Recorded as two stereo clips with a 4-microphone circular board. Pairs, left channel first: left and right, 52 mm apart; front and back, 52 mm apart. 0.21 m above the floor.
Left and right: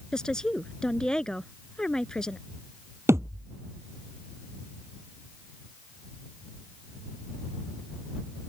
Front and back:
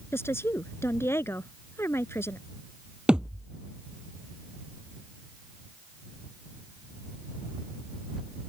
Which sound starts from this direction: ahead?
A woman speaking, at 0.1 s.